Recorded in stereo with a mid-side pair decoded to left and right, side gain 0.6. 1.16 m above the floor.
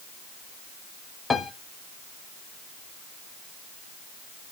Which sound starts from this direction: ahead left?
A piano, at 1.3 s.